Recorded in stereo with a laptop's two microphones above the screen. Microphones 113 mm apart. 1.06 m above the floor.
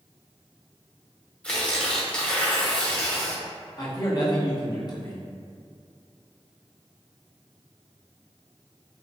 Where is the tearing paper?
10° left (ahead or behind), 1.2 m.